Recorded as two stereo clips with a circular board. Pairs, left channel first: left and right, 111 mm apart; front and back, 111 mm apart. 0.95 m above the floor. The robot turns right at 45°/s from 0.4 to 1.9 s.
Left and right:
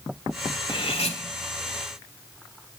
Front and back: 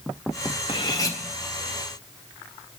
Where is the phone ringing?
No phone ringing in this recording.